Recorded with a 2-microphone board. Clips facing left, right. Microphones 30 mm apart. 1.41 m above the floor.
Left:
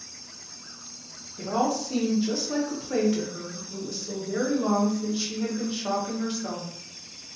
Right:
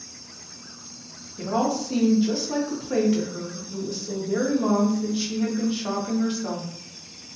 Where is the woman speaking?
5° right (ahead or behind), 0.7 m.